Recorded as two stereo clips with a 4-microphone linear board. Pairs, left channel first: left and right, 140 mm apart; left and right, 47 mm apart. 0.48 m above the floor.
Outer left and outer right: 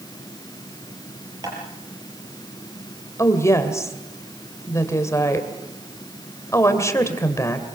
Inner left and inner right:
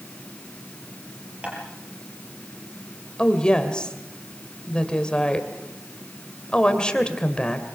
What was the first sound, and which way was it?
Tapping, 25° right (ahead or behind).